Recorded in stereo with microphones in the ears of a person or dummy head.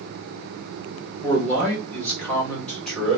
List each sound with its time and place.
1.2 s a man speaking: 5° left (ahead or behind), 2.5 m